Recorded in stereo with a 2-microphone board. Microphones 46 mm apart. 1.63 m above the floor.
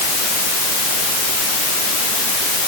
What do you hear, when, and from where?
Only background noise.